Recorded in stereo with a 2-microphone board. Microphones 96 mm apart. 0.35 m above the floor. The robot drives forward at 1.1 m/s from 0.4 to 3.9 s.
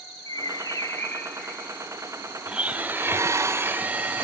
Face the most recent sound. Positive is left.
turn(degrees=-20)  # may be behind; listen again after turning